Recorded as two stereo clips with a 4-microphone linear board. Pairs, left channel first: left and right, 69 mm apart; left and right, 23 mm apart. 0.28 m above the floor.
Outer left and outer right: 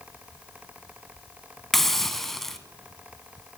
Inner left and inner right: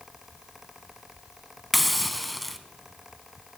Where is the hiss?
5° left (ahead or behind), 0.6 m.